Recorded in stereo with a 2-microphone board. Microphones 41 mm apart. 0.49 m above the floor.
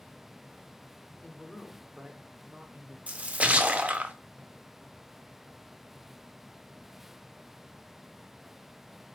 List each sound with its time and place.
1.2 s a man speaking: 40° left (ahead or behind), 1.4 m; by 3.0 s 35° right (ahead or behind), 1.4 m
3.1 s a splash: 30° right (ahead or behind), 0.5 m